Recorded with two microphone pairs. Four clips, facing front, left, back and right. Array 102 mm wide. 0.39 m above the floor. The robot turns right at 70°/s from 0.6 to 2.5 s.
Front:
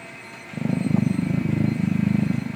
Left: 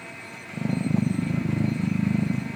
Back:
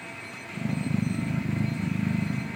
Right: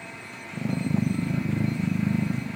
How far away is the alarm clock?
No alarm clock in this recording.